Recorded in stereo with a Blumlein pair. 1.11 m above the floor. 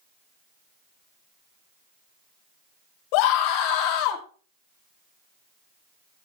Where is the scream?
45° left, 4 m; by 4.2 s 40° left, 3 m.